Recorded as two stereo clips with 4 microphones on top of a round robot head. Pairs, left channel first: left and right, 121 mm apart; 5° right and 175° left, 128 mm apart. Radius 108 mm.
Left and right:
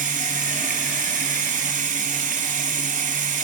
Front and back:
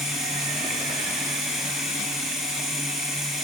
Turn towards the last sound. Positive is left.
turn(degrees=-95)